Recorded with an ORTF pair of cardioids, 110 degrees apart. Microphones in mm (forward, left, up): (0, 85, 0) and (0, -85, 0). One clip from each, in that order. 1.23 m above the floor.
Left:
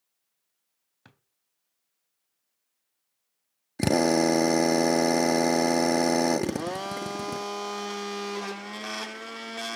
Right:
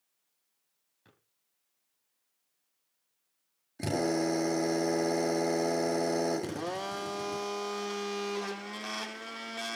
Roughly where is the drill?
Ahead left.